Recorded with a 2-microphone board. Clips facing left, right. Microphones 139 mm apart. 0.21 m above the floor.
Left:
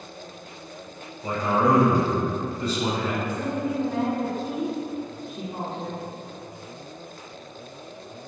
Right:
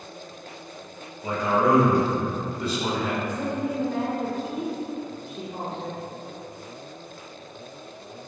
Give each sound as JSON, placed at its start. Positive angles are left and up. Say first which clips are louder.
{"t": 1.2, "sound": "a man speaking", "louder": "even", "side_deg": -10, "distance_m": 1.5}
{"t": 3.2, "sound": "a woman speaking", "louder": "even", "side_deg": 35, "distance_m": 1.2}